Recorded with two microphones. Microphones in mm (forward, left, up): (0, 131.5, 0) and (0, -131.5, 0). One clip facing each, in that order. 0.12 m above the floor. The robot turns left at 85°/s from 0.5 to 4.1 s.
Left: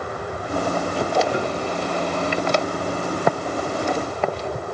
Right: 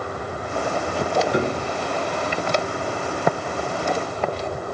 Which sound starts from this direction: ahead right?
A piano, at 1.3 s.